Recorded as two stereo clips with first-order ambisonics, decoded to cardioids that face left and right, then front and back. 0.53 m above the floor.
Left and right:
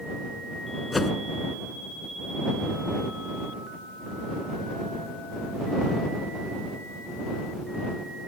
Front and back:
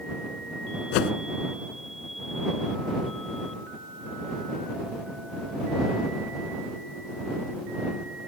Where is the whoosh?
10° left.